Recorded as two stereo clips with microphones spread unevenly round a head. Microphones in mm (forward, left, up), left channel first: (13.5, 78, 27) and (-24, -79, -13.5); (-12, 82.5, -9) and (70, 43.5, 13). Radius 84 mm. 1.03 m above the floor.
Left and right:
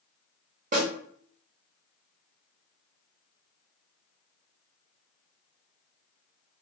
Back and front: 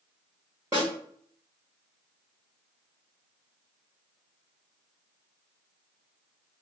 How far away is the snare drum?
About 1.6 m.